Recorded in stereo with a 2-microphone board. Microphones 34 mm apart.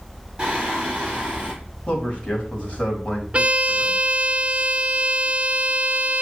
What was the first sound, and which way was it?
Singing, 20° right (ahead or behind).